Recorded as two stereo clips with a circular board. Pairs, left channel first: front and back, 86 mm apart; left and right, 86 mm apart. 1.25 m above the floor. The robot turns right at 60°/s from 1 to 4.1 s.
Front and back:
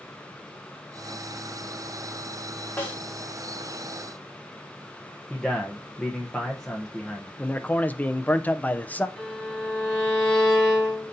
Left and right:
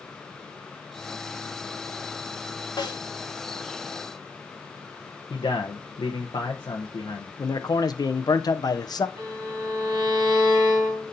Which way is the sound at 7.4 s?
70° left.